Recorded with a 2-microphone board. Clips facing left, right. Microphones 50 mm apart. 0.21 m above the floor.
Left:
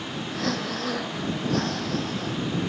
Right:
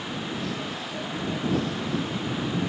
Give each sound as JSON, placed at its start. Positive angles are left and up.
{"t": 0.3, "sound": "breathing", "side_deg": 65}